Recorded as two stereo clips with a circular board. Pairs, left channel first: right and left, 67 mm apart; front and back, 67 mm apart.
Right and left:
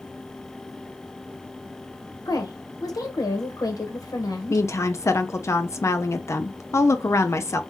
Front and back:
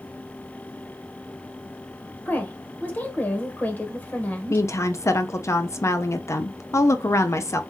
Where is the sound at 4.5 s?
45° right, 0.6 m.